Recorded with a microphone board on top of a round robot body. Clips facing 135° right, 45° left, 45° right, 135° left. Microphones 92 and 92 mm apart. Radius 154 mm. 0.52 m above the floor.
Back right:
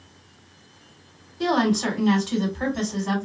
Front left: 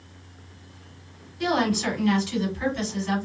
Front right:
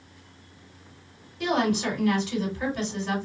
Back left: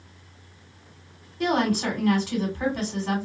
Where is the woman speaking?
Straight behind, 2.5 m.